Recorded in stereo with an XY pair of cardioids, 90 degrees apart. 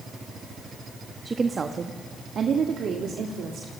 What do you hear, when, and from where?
1.2 s a woman speaking: 35° right, 1.3 m; by 3.7 s 80° right, 2.5 m